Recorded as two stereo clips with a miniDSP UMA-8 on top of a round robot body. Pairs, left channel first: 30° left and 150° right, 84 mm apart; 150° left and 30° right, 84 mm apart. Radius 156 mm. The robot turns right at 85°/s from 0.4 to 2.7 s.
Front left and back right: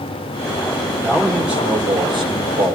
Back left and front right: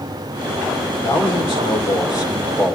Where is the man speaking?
95° left, 3 m; by 2.8 s 125° right, 3 m.